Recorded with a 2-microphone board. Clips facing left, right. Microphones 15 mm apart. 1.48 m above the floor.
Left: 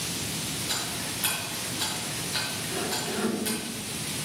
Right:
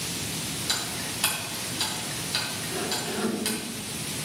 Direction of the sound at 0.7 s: 65° right (ahead or behind).